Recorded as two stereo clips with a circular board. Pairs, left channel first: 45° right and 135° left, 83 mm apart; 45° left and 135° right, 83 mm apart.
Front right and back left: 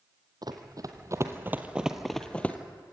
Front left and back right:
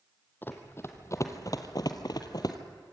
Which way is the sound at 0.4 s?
105° left.